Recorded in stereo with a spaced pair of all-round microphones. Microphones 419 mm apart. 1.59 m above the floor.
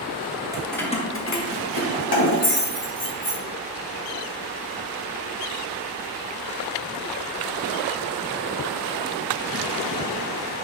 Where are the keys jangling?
10° right (ahead or behind), 0.8 m; by 3.4 s 60° left (ahead or behind), 2 m.